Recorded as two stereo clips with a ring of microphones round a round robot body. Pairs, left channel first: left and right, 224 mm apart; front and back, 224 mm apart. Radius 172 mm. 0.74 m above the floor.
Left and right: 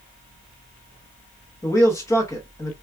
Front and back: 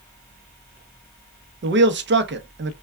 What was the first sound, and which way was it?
A man speaking, 165° left.